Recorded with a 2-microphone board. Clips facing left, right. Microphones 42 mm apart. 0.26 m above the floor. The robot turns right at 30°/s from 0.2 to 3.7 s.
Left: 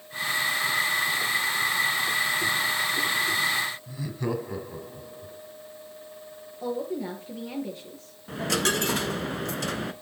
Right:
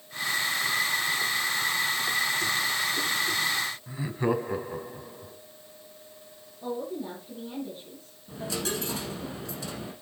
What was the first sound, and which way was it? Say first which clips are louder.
Laughter: right 3 dB; 25° right (ahead or behind).